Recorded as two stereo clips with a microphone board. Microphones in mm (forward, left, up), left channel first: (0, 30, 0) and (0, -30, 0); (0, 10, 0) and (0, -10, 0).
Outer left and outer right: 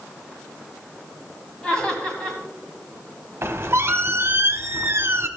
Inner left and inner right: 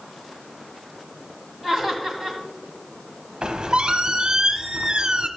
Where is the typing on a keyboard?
I don't hear typing on a keyboard.